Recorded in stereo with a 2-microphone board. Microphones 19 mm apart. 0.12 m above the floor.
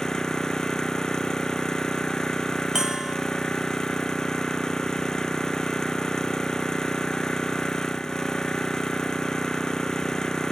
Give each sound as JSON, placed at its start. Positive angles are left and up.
{"t": 0.0, "sound": "an engine running", "side_deg": 40}
{"t": 2.8, "sound": "a bell", "side_deg": -35}